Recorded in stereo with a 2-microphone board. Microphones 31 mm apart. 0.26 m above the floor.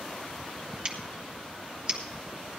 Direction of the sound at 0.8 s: 35° right (ahead or behind).